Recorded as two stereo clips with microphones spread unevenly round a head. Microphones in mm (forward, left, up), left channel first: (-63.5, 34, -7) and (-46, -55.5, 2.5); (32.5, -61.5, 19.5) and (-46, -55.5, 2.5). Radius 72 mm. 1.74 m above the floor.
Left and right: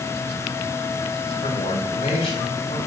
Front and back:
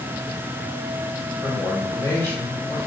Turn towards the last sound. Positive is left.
turn(degrees=70)